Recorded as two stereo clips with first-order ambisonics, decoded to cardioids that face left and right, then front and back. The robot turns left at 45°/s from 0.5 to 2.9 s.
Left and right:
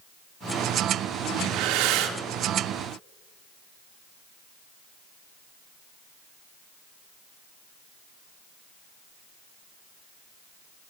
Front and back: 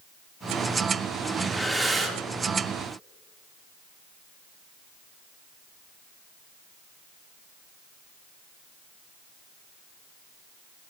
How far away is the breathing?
About 1.7 m.